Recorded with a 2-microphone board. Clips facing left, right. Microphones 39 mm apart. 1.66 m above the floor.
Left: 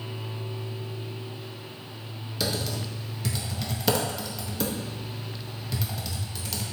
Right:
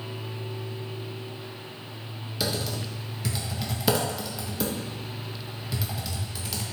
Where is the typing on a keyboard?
5° right (ahead or behind), 0.7 m.